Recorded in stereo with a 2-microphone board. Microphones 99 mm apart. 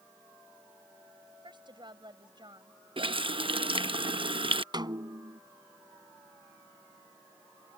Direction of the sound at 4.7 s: 45° right (ahead or behind).